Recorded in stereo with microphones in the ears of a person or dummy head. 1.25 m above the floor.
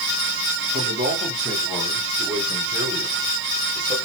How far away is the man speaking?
About 2.5 m.